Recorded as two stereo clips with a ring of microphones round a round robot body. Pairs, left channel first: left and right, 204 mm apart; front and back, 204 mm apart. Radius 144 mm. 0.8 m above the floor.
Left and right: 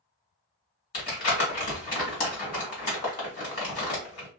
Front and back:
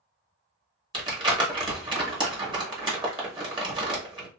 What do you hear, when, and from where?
0.9 s crumpling: 120° left, 1.4 m